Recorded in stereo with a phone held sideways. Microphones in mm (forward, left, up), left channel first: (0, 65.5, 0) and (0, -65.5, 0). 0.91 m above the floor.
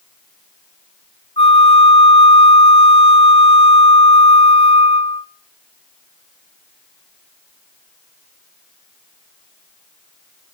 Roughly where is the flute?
Left.